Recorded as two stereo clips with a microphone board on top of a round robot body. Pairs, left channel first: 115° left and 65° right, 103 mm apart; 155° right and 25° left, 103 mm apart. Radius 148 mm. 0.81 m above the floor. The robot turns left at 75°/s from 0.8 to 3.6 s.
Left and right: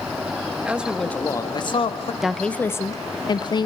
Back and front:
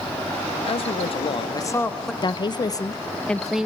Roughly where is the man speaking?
Behind right.